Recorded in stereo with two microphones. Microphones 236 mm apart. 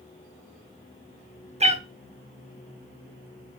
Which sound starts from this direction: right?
A cat meowing, at 1.6 s.